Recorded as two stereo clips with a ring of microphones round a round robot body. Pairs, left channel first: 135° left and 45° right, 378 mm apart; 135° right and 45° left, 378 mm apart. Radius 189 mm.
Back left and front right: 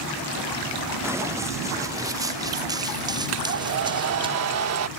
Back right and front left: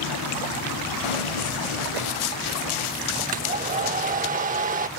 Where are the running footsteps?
130° right; by 4.3 s 125° right.